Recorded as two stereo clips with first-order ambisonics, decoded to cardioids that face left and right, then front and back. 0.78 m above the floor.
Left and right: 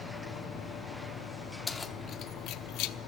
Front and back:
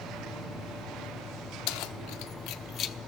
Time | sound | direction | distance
1.7 | keys jangling | 10° left | 0.8 m